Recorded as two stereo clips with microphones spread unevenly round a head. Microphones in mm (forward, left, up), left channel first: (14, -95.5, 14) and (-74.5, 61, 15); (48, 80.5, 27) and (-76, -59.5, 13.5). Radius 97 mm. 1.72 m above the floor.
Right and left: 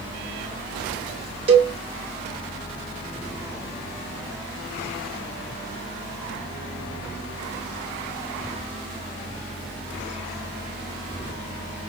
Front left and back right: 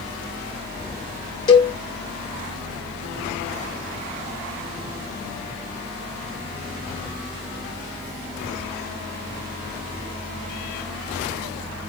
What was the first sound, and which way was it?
A cowbell, 85° left.